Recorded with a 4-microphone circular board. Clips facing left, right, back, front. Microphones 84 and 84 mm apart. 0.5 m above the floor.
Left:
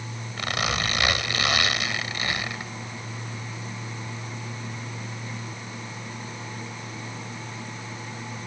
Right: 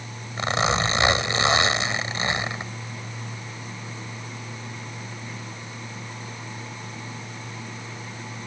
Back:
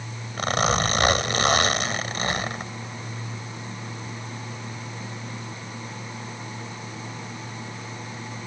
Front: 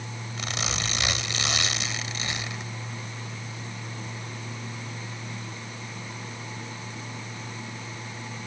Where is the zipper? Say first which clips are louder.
Right 5 dB, back 11 dB; 150° right.